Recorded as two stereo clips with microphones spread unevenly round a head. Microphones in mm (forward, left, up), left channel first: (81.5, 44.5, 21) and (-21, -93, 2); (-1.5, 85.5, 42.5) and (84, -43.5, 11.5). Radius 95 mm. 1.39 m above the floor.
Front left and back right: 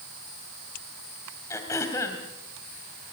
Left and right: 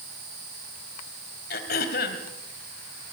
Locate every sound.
1.5 s throat clearing: 125° left, 3 m